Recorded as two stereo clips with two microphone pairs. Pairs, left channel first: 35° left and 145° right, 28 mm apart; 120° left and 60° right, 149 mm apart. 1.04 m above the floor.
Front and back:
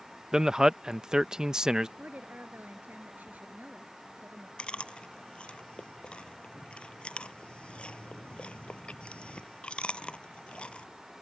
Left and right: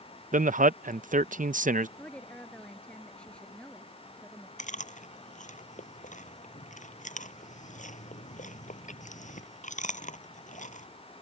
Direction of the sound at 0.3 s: 85° right.